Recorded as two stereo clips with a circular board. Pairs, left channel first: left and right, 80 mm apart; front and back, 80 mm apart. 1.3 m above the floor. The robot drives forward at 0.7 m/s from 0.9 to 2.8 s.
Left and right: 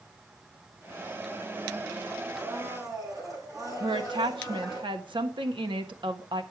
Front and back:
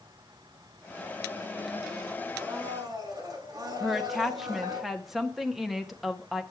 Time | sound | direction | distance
2.4 | a blender | 135° right | 8.5 m
3.8 | a woman speaking | 90° right | 1.3 m